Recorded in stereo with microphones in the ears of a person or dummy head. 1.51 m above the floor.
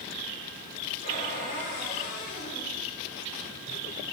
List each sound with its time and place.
1.0 s a cupboard door: 60° left (ahead or behind), 4.5 m